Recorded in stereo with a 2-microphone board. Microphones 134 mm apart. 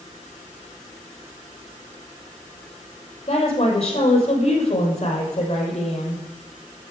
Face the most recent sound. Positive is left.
turn(degrees=55)  # may be behind; listen again after turning